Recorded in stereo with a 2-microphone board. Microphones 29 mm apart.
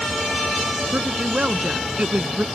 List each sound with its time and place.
0.9 s a woman speaking: 35° right (ahead or behind); by 2.5 s 55° right (ahead or behind)